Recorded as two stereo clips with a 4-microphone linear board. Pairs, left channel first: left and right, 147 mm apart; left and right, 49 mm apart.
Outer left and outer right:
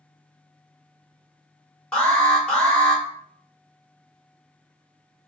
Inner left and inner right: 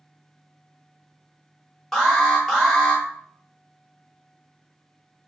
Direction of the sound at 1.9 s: 5° left (ahead or behind).